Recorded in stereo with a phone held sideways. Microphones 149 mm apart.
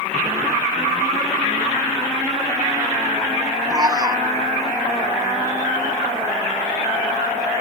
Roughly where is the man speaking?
Right.